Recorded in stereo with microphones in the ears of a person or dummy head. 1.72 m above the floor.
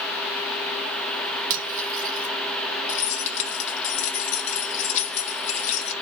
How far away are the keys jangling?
About 0.9 m.